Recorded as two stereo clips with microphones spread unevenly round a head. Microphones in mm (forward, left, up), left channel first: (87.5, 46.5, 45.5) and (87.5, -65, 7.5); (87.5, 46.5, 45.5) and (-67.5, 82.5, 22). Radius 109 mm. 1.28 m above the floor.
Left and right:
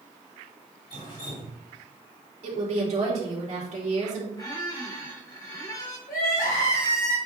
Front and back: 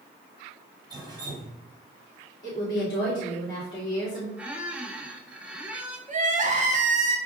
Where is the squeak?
80° left, 1.0 m.